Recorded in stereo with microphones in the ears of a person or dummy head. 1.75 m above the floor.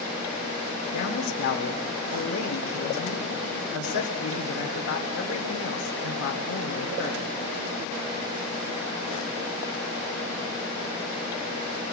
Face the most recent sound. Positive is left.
turn(degrees=80)